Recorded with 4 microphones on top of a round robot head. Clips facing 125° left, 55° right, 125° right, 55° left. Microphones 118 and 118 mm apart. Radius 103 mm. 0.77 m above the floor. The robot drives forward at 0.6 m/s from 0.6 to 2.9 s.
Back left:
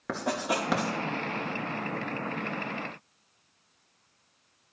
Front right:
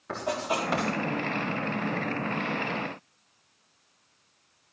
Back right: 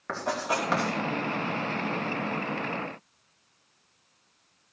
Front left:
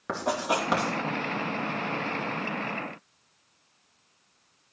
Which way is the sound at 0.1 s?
125° left.